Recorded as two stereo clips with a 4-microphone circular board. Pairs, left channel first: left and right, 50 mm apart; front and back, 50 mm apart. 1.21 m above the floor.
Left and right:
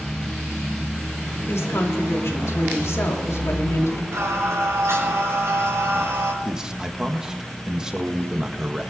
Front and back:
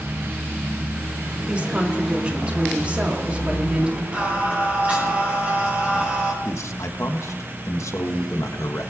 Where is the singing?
115° right, 6.5 m.